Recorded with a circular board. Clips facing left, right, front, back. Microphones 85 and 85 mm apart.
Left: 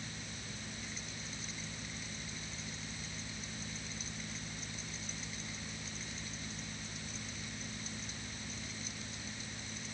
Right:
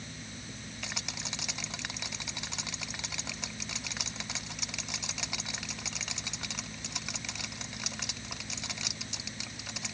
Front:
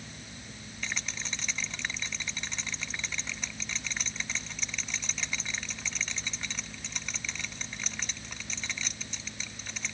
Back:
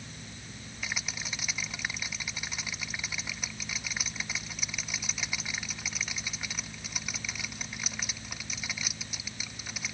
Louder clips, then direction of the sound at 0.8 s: Right 5 dB, even; 100° right.